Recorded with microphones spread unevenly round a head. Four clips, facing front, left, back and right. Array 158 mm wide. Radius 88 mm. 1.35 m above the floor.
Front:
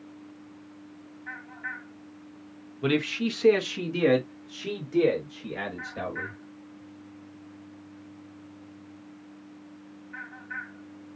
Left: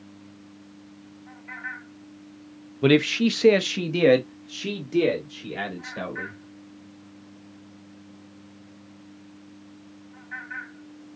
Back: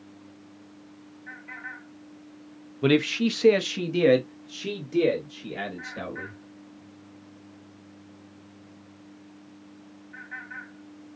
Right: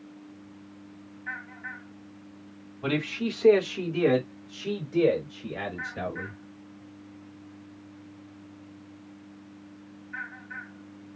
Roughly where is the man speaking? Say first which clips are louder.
Left 10 dB, back 4 dB; behind left.